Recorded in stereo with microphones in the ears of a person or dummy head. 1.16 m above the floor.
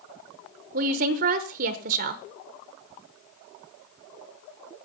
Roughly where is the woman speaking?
Right.